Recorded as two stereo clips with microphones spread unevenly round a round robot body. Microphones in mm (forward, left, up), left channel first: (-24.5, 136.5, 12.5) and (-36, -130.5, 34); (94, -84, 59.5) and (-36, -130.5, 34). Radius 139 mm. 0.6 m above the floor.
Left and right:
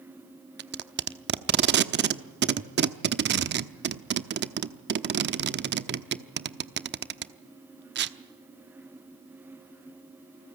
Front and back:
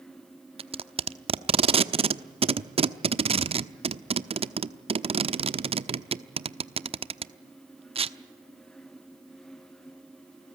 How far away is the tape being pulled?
About 1.0 m.